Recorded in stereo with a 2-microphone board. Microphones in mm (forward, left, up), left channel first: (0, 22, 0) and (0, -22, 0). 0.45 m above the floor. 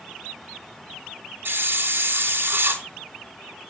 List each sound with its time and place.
1.4 s a hiss: 55° right (ahead or behind), 3 m